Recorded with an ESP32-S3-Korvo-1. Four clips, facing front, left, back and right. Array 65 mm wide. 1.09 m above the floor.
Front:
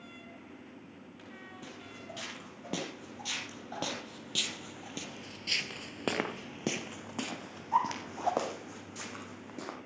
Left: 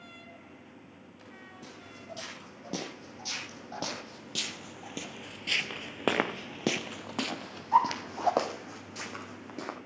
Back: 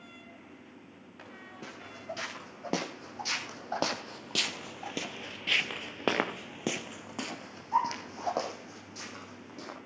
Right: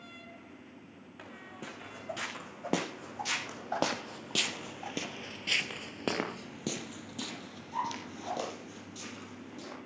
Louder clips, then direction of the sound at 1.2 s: Right 4 dB, back 3 dB; 125° right.